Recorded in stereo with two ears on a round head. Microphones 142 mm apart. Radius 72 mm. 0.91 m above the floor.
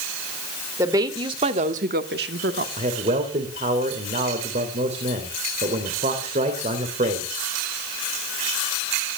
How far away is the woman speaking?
About 2.5 m.